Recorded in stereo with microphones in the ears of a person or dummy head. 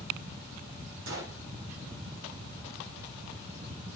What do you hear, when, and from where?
1.1 s a gunshot: 60° right (ahead or behind), 3.5 m